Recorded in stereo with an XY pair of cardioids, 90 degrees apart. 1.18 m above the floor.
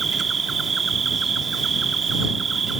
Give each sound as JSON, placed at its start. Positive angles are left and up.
{"t": 0.0, "sound": "an insect", "azimuth_deg": -45}